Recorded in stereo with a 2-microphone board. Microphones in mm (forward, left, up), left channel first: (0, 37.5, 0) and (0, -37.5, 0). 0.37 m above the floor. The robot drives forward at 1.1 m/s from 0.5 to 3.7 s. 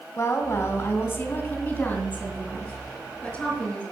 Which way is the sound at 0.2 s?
35° left (ahead or behind).